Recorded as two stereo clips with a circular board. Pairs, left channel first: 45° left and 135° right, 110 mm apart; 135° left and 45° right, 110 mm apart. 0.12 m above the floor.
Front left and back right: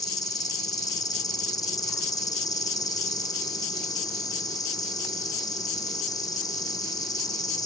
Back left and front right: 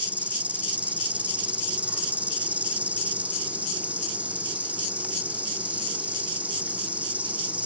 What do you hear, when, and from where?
0.0 s an insect: 25° left, 1.2 m